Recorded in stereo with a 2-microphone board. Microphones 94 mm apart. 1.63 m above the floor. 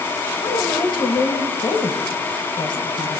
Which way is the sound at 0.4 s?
60° left (ahead or behind).